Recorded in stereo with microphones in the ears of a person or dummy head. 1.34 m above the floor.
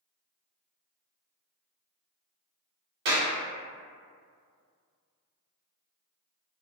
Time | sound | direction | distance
3.0 | a clap | 55° right (ahead or behind) | 0.9 m